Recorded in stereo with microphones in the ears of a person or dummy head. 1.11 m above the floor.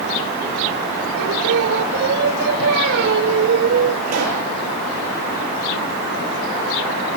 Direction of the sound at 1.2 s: 65° right (ahead or behind).